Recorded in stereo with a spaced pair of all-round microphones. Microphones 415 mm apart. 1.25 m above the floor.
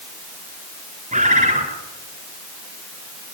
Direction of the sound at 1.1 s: 15° right (ahead or behind).